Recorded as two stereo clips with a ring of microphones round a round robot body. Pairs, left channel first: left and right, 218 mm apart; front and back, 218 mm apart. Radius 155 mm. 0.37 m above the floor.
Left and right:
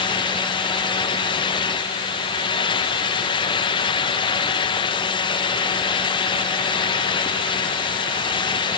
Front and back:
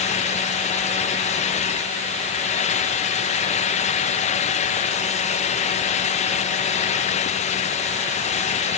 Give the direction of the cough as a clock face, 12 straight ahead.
I don't hear a cough.